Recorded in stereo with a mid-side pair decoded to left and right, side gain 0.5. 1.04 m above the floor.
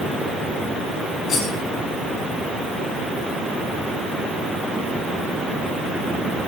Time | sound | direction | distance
1.3 | cutlery clinking | 55° left | 6.5 m